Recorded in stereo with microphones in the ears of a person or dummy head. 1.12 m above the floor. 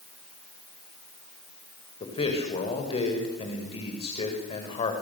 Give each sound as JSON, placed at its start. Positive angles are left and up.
{"t": 2.0, "sound": "a man speaking", "side_deg": 25, "distance_m": 5.0}